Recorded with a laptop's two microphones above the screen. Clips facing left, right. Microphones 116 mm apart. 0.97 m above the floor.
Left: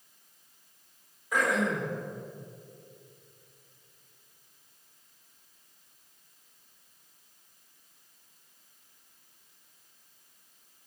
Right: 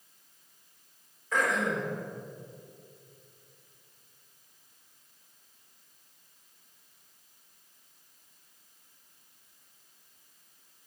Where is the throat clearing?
10° left (ahead or behind), 4 m.